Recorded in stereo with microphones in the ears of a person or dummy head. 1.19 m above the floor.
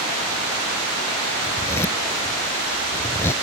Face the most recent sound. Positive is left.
turn(degrees=15)  # may be behind; listen again after turning